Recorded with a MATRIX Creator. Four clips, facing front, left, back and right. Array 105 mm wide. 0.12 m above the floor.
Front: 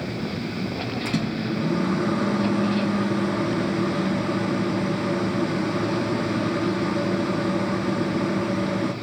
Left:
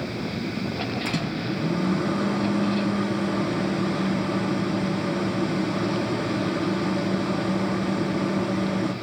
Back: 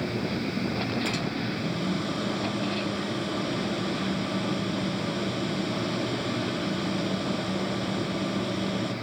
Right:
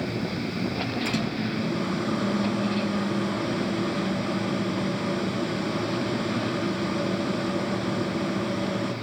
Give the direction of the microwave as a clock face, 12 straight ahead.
12 o'clock.